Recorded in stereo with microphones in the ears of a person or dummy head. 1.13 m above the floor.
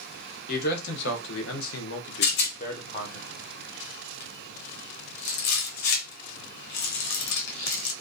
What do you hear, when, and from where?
0.5 s a man speaking: 55° left (ahead or behind), 1.0 m; by 3.2 s 20° left (ahead or behind), 0.7 m
2.2 s a rattle: 60° left (ahead or behind), 0.6 m